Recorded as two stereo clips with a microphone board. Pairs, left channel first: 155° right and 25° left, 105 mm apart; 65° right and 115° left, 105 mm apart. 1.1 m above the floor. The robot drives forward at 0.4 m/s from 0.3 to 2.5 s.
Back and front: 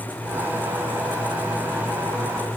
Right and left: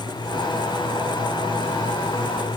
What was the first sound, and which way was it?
Only background noise.